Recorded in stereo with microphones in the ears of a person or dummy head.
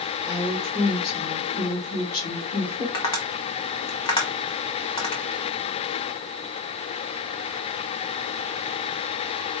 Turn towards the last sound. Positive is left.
turn(degrees=25)  # may be behind; listen again after turning